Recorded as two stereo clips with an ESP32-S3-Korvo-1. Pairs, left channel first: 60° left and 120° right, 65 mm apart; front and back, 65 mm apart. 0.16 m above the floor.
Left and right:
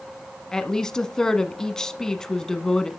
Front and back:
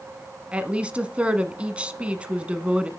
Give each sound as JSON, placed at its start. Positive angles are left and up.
{"t": 0.5, "sound": "a woman speaking", "azimuth_deg": 130, "distance_m": 1.1}